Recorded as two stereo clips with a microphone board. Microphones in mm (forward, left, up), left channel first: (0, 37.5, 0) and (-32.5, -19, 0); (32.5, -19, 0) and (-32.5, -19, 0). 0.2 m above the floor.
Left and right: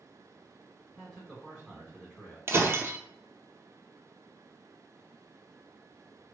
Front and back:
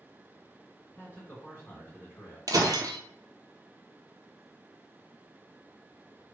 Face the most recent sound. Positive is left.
turn(degrees=-170)